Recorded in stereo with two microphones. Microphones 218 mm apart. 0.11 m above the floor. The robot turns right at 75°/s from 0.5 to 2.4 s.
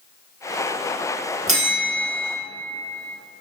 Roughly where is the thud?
I don't hear a thud.